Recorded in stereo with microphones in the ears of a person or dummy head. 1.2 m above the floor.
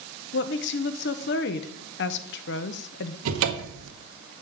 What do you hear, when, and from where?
0.3 s a woman speaking: 55° left (ahead or behind), 0.9 m
3.2 s a cupboard door: 75° right (ahead or behind), 1.0 m